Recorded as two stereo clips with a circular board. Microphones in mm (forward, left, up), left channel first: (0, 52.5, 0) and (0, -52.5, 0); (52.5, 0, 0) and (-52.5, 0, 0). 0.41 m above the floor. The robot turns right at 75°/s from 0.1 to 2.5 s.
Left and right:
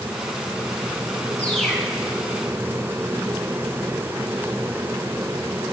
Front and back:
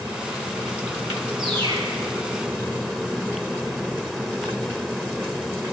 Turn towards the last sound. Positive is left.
turn(degrees=-120)